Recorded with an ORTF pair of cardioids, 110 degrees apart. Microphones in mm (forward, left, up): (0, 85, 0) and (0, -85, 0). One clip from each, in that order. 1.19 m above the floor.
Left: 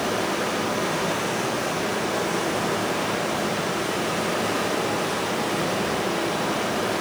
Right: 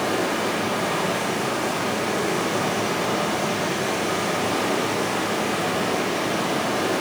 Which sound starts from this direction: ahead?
Running water, at 0.0 s.